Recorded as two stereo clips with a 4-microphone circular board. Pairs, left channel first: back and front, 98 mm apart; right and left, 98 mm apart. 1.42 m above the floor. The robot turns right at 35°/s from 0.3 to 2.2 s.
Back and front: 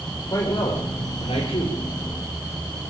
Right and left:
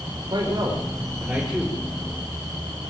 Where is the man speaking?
135° left, 5 m; by 1.8 s 175° right, 5 m.